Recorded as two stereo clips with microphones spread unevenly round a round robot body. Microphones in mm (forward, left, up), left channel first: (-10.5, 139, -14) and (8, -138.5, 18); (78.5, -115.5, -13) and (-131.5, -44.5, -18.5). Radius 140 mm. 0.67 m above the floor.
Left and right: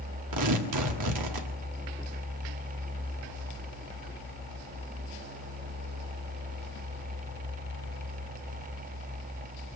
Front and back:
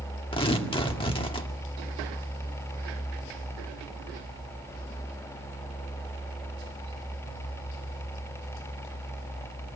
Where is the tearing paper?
85° right, 1.9 m.